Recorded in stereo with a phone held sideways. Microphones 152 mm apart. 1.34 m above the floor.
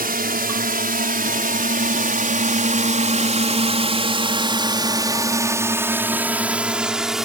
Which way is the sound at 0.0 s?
80° right.